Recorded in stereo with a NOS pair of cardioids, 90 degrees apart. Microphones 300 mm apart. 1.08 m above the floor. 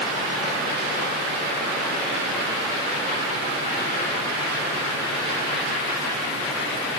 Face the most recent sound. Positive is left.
No sound to turn to.